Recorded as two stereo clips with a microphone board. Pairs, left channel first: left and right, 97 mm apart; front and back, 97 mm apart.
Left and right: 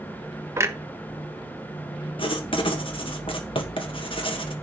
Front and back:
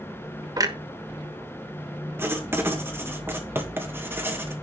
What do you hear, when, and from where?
0.6 s a clunk: 145° right, 1.2 m
2.2 s writing: 115° left, 1.9 m